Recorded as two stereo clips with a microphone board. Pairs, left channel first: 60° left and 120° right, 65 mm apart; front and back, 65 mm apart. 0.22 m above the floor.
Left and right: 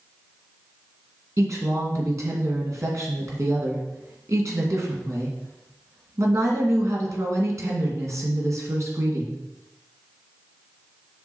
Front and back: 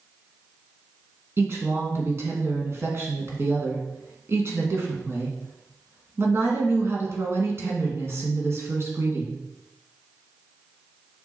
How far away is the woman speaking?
About 2.5 m.